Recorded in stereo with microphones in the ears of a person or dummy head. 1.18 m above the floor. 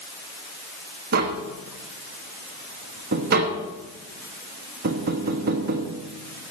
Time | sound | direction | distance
1.1 | tapping | 50° right (ahead or behind) | 1.1 m